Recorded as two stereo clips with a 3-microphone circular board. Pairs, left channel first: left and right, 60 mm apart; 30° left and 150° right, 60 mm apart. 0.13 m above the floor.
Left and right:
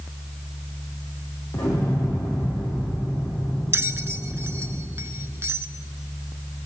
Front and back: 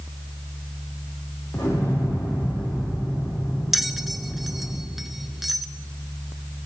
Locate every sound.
1.5 s an explosion: 80° left, 7 m
3.7 s a bell: 65° right, 0.6 m